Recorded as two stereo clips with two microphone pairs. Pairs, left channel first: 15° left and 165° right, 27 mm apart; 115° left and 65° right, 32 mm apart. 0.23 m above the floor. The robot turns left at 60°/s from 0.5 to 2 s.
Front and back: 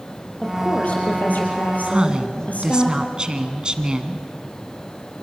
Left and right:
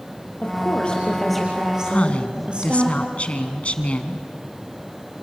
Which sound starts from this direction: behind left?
A woman speaking, at 1.9 s.